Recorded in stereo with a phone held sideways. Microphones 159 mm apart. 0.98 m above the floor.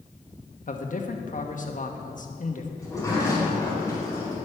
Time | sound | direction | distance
0.7 | a man speaking | 55° left (ahead or behind) | 1.2 m
2.8 | a sliding door | 20° left (ahead or behind) | 3.5 m